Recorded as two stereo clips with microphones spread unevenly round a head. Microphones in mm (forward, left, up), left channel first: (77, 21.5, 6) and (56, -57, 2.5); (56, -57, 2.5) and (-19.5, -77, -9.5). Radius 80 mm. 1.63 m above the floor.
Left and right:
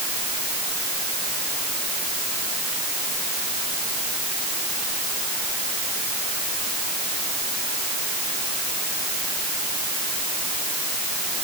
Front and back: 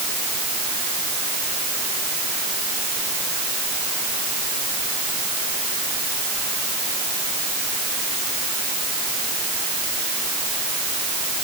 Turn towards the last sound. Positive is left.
No sound to turn to.